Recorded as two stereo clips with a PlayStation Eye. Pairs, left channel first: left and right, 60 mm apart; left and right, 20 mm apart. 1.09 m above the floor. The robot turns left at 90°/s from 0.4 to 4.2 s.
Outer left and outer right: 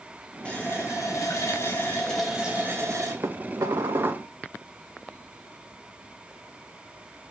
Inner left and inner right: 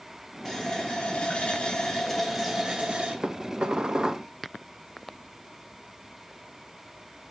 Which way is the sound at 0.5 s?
165° left.